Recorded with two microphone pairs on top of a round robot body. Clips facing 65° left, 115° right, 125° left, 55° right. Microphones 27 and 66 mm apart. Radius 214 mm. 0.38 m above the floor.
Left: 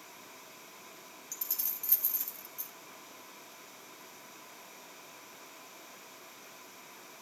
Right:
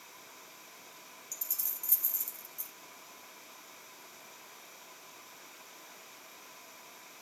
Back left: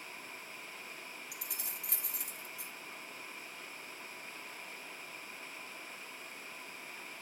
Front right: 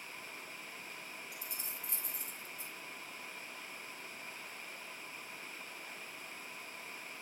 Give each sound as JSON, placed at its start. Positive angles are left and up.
{"t": 1.3, "sound": "keys jangling", "azimuth_deg": 125, "distance_m": 1.8}